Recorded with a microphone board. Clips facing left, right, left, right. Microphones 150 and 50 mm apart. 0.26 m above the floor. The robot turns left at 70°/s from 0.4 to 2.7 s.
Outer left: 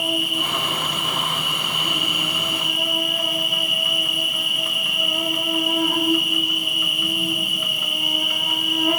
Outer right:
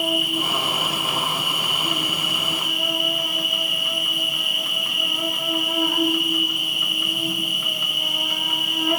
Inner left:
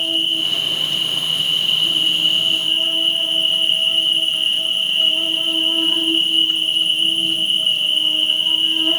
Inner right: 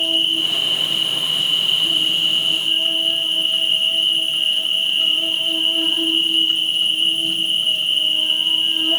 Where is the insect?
75° right, 0.8 m; by 9.0 s 125° left, 0.8 m.